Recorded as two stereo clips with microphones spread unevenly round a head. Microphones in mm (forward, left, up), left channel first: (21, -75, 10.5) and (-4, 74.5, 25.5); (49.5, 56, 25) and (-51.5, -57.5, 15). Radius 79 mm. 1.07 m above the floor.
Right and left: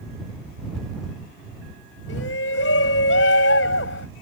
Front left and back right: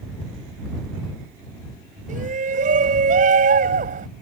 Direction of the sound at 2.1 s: 90° right.